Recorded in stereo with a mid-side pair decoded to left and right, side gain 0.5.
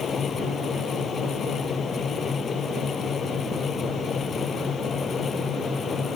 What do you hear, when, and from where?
0.0 s a fan: 40° left